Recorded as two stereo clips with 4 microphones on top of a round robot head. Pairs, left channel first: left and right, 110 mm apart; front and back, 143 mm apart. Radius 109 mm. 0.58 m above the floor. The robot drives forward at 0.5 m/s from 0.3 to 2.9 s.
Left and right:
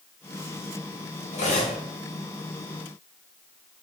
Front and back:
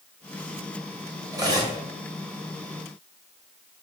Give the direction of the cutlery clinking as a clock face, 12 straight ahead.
8 o'clock.